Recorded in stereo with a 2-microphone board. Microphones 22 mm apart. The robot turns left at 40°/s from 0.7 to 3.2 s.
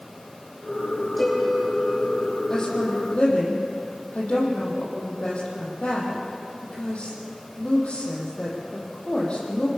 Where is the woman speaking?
25° left (ahead or behind), 7.5 m; by 9.7 s 50° left (ahead or behind), 7.5 m.